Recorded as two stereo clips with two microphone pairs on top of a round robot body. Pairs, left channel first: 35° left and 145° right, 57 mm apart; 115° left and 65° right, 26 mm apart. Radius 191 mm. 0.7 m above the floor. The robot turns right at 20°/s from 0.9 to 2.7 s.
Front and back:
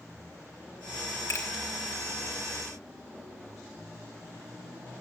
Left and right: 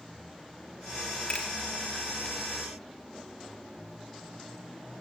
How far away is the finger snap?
About 3 m.